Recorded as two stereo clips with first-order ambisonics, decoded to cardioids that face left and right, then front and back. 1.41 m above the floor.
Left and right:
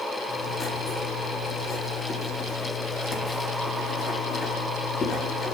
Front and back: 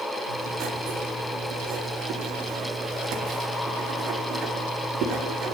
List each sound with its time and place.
0.3 s writing: 150° left, 1.8 m